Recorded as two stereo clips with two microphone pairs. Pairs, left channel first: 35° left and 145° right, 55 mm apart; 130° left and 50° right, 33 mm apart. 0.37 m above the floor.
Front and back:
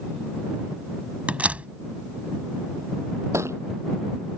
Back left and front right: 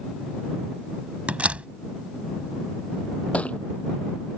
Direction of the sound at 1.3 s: 85° right.